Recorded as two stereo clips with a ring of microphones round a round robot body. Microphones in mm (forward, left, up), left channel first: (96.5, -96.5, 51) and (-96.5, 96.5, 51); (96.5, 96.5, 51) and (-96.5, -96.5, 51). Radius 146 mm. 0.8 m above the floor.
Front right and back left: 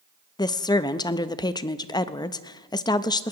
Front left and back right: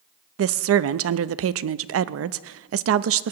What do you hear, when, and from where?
0.4 s a woman speaking: 115° right, 0.6 m